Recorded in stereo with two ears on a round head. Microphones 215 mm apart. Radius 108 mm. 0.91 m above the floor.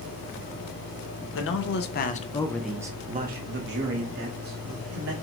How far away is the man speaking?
About 0.9 m.